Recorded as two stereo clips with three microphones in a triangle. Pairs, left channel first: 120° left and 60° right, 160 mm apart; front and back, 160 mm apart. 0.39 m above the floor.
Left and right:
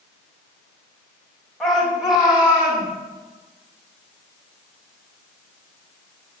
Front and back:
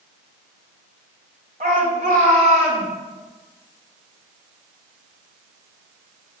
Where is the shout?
150° right, 2 m; by 2.9 s 140° right, 2.5 m.